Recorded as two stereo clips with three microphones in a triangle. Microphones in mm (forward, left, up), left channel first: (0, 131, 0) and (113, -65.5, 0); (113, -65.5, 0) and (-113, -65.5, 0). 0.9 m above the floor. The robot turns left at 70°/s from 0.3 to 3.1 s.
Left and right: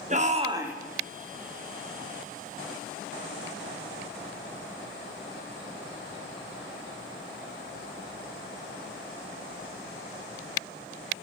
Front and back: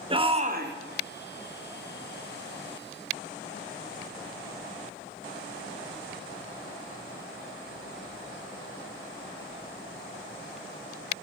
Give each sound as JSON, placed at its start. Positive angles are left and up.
{"t": 0.1, "sound": "a shout", "azimuth_deg": -115, "distance_m": 1.0}